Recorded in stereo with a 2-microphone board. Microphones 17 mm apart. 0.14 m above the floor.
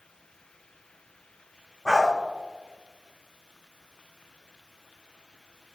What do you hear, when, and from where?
1.9 s a dog barking: 40° left (ahead or behind), 2.5 m